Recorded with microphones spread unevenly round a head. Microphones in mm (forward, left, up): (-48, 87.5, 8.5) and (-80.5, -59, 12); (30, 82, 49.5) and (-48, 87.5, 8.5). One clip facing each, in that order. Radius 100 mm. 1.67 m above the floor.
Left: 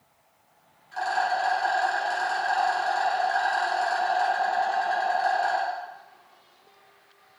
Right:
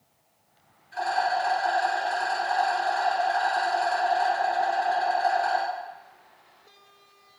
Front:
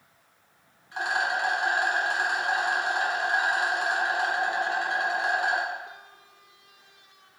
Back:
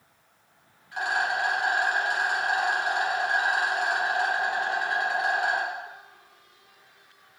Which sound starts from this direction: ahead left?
A rattle, at 0.9 s.